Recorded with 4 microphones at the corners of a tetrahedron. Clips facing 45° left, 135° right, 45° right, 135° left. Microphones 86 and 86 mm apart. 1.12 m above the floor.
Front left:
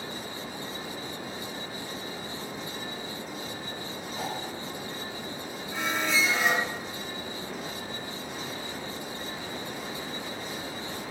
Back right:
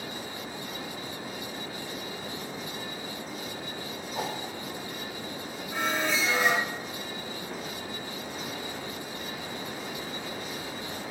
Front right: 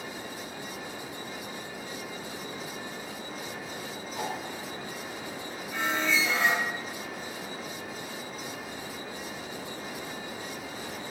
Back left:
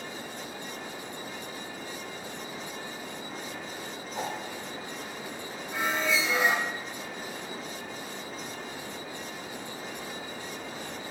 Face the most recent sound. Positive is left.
turn(degrees=-155)